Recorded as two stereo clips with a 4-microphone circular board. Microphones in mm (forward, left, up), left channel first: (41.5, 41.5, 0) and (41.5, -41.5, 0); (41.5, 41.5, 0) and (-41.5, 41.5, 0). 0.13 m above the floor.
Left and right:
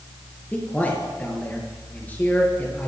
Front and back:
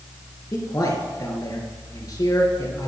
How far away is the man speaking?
About 2.5 m.